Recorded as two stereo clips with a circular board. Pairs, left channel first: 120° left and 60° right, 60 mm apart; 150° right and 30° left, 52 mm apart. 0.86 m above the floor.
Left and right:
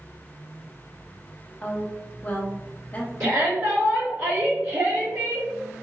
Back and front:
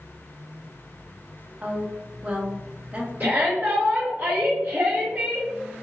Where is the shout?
25° right, 0.9 m.